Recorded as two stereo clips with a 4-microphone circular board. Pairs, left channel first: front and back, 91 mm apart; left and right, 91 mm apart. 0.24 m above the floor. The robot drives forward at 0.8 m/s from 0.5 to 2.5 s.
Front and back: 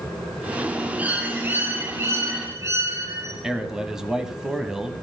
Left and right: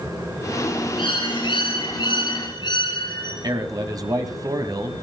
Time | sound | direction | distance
1.0 | a bird | 105° left | 3.5 m
3.4 | a man speaking | 100° right | 1.7 m